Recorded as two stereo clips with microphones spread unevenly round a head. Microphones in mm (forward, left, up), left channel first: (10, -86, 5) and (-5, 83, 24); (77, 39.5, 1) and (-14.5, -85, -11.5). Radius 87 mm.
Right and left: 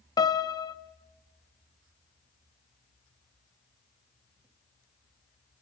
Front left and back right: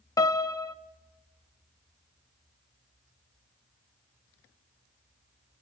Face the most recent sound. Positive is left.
turn(degrees=-15)